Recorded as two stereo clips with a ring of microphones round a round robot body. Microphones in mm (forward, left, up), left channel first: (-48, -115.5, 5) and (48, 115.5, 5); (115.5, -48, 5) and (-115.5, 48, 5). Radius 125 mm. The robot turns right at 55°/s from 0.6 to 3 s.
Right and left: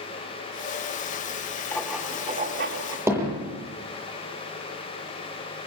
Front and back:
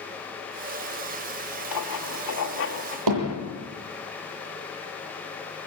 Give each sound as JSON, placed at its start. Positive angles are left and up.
{"t": 1.7, "sound": "writing", "azimuth_deg": -30, "distance_m": 2.5}
{"t": 3.1, "sound": "hammering", "azimuth_deg": 150, "distance_m": 9.5}